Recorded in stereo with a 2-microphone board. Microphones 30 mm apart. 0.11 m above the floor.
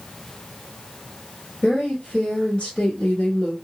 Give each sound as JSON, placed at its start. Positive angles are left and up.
{"t": 1.6, "sound": "a woman speaking", "side_deg": 30, "distance_m": 1.6}